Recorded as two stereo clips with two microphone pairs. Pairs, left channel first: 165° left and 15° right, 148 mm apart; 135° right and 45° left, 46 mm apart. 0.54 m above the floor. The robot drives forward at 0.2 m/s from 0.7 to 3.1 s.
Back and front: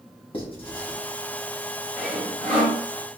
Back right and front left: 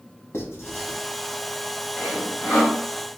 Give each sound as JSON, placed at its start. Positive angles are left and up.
{"t": 0.3, "sound": "writing", "azimuth_deg": -145, "distance_m": 1.0}
{"t": 2.0, "sound": "sawing", "azimuth_deg": -100, "distance_m": 1.1}